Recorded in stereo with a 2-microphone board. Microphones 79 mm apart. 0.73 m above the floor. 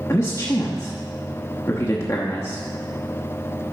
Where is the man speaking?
35° left (ahead or behind), 0.9 m.